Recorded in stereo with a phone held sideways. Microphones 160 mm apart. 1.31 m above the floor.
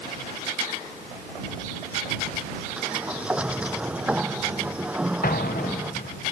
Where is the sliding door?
5° right (ahead or behind).